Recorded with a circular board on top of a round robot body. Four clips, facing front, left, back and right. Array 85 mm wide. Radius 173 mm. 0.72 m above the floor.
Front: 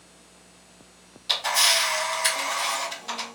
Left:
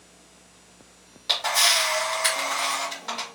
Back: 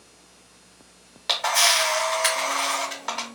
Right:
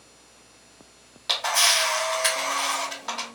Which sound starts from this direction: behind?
A camera shutter, at 1.3 s.